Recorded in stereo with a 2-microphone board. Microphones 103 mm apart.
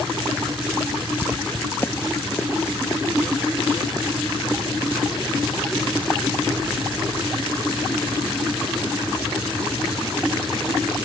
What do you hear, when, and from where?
1.2 s footsteps: 10° right (ahead or behind); by 6.2 s 25° left (ahead or behind)